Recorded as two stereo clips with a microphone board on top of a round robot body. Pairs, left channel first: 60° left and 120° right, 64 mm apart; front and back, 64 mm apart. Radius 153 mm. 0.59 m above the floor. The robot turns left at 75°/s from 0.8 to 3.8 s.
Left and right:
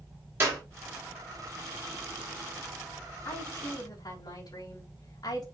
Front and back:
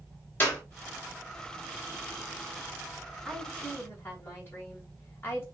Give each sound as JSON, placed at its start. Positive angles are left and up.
{"t": 0.4, "sound": "a clap", "azimuth_deg": -60, "distance_m": 5.0}
{"t": 3.2, "sound": "a woman speaking", "azimuth_deg": 100, "distance_m": 6.0}